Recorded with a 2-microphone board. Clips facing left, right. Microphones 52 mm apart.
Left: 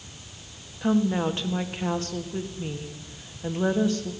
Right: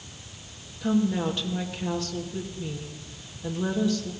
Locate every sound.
0.8 s a woman speaking: 35° left (ahead or behind), 1.7 m